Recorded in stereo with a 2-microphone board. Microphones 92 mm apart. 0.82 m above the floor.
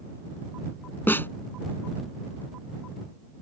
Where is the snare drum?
25° left (ahead or behind).